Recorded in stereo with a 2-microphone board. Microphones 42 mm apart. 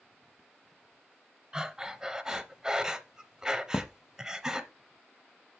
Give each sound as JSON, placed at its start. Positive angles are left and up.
{"t": 1.5, "sound": "breathing", "side_deg": -15, "distance_m": 0.7}
{"t": 3.7, "sound": "a thud", "side_deg": 55, "distance_m": 0.7}